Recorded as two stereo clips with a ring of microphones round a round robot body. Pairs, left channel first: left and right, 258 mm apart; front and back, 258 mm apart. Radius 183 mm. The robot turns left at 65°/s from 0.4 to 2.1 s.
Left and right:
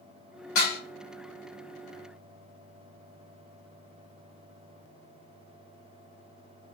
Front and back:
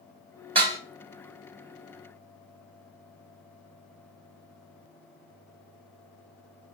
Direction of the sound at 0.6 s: 110° left.